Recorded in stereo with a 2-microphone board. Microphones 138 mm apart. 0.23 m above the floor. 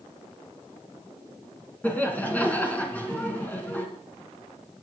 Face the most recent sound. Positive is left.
turn(degrees=10)  # may be behind; listen again after turning